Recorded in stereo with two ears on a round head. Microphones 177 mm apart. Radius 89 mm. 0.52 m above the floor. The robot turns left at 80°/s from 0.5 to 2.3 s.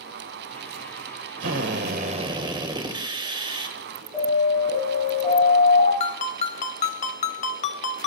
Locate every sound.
1.4 s a drill: 80° right, 2.0 m; by 3.8 s 150° right, 2.0 m
4.1 s an alarm: 10° left (ahead or behind), 9 m
6.0 s a ringtone: 35° left (ahead or behind), 0.8 m